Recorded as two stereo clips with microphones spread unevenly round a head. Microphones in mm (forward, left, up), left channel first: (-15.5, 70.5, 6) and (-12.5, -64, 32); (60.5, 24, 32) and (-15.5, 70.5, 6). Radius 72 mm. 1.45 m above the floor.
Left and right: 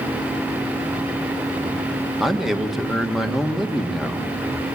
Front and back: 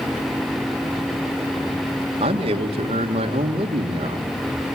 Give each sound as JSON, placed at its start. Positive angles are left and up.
{"t": 2.2, "sound": "a man speaking", "azimuth_deg": -175, "distance_m": 1.5}